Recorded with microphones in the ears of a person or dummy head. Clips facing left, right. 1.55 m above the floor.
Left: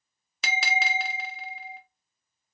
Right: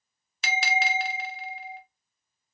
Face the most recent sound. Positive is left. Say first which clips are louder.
# right 2 dB
turn(degrees=75)  # may be behind; listen again after turning